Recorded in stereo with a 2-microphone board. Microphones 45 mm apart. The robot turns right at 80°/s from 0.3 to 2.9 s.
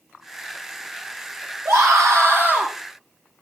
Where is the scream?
105° right, 5 m; by 2.7 s 20° right, 5 m.